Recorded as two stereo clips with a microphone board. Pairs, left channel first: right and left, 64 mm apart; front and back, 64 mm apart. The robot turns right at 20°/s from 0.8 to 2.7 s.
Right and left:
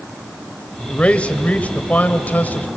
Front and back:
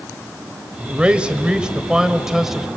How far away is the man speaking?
About 1.2 m.